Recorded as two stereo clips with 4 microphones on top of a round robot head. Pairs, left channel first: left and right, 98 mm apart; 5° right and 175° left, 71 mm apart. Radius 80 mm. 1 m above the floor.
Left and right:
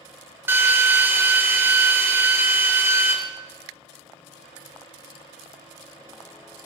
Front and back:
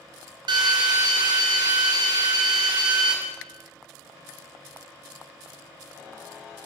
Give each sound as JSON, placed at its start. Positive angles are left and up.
{"t": 0.5, "sound": "a drill", "azimuth_deg": -155, "distance_m": 2.5}